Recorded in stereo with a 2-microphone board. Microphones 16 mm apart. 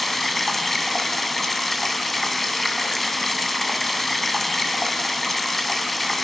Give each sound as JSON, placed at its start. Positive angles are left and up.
{"t": 0.0, "sound": "running water", "side_deg": 10, "distance_m": 2.5}